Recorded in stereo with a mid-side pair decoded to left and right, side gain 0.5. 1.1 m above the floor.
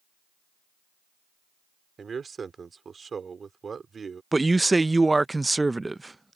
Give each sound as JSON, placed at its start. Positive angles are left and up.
{"t": 2.0, "sound": "a man speaking", "azimuth_deg": -35}
{"t": 4.3, "sound": "a man speaking", "azimuth_deg": -15}